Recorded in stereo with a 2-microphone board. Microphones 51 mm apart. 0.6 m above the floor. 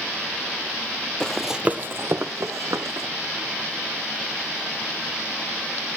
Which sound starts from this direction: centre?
Running footsteps, at 1.2 s.